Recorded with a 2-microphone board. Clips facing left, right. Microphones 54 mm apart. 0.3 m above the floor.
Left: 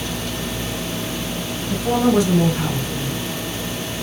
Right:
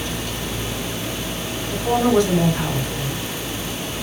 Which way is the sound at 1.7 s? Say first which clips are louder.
Even; 15° left (ahead or behind).